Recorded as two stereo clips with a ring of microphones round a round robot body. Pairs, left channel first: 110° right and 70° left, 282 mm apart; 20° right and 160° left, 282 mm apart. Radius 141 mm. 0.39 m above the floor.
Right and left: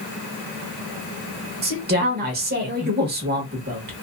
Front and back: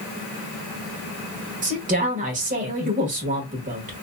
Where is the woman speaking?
105° left, 1.1 m.